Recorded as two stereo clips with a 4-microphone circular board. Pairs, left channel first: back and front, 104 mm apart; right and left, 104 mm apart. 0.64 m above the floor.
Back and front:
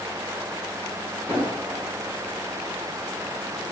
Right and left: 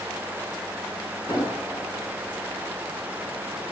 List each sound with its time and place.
1.3 s an explosion: 70° right, 1.5 m